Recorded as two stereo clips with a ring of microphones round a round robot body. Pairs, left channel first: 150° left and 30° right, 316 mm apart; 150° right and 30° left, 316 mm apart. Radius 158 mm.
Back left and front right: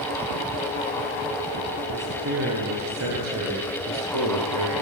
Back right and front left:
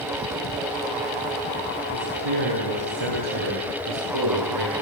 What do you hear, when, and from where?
1.9 s a man speaking: 30° left, 7 m; by 4.7 s 10° left, 10 m